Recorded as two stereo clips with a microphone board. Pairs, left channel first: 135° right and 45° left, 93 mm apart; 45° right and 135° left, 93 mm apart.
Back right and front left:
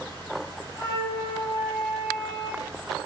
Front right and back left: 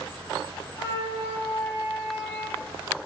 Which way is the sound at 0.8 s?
85° right.